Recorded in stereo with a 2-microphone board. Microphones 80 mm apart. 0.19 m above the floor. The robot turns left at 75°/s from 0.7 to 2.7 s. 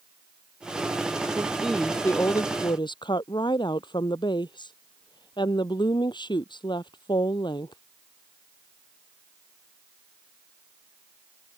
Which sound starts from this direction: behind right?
A woman speaking, at 1.4 s.